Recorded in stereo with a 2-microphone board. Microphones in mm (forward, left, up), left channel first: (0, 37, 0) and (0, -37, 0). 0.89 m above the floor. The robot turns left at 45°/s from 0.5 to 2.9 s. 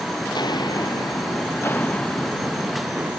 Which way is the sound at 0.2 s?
75° left (ahead or behind).